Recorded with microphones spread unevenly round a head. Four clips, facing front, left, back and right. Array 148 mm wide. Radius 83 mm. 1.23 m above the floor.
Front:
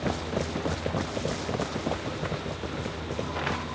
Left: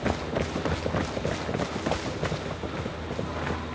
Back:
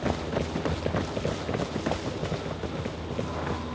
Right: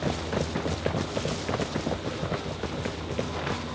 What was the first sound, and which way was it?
Only background noise.